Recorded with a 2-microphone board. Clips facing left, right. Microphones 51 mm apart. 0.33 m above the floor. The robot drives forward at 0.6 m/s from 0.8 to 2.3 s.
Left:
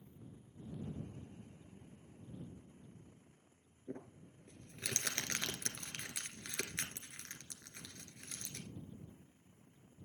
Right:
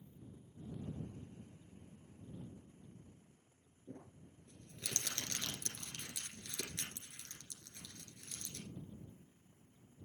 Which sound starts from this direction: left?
Crumpling, at 3.9 s.